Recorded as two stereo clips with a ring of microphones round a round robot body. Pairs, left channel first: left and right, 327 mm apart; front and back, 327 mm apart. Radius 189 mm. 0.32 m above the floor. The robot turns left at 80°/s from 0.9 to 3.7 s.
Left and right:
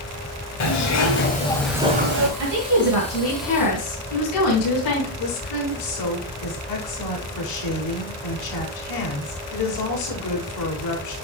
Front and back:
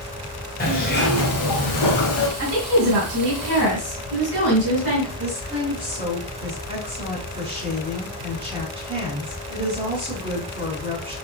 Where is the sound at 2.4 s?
130° right, 4 m; by 5.1 s 125° left, 4 m.